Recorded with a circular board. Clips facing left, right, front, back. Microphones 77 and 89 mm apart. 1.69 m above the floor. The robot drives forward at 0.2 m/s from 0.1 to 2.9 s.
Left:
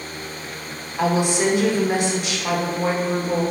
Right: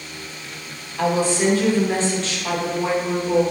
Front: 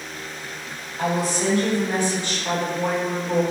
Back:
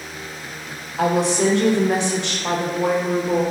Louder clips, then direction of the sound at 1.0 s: Even, back 5 dB; 165° left.